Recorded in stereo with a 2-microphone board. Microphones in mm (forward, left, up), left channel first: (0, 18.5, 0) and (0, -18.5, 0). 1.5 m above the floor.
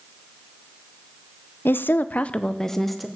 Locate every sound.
1.6 s a woman speaking: 70° left (ahead or behind), 0.6 m; by 3.1 s centre (ahead or behind), 0.9 m